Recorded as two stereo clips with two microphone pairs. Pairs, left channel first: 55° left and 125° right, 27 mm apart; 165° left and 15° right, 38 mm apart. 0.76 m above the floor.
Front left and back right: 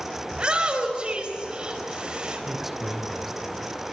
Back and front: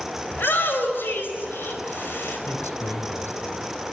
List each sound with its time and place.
0.3 s a shout: straight behind, 5 m
2.5 s a man speaking: 150° left, 3 m